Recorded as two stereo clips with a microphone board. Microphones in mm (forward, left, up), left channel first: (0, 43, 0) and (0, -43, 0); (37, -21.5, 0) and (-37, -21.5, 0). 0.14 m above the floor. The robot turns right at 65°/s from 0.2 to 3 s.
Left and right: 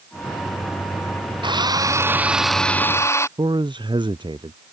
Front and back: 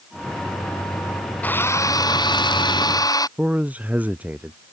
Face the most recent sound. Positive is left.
turn(degrees=-110)